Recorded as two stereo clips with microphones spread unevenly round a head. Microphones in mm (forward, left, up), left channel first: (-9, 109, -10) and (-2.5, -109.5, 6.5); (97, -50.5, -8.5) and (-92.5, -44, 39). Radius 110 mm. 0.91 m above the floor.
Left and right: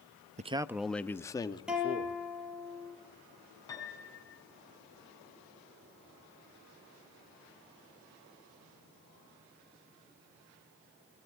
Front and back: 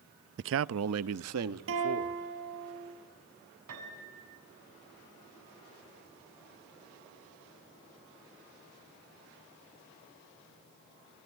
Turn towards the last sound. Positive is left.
turn(degrees=165)